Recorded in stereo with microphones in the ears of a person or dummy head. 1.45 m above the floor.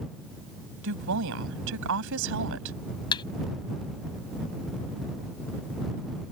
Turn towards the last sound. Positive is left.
turn(degrees=25)  # may be behind; listen again after turning